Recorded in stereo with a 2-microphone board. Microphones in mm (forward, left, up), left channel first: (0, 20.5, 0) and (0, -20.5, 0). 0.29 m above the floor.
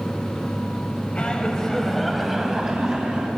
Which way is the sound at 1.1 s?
30° left (ahead or behind).